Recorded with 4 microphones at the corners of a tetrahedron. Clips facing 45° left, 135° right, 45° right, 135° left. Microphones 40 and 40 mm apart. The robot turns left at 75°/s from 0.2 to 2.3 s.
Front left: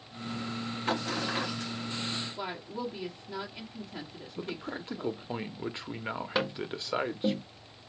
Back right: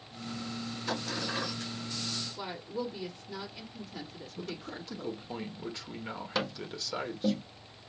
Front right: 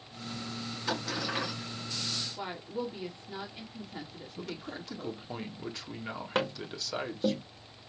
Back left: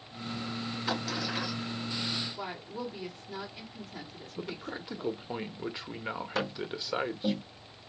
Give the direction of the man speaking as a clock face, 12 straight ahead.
9 o'clock.